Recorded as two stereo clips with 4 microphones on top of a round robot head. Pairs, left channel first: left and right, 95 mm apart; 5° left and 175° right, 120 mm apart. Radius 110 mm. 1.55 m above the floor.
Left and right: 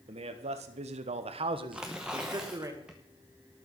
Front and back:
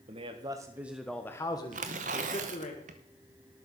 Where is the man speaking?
125° right, 1.3 m; by 2.7 s 30° right, 1.9 m.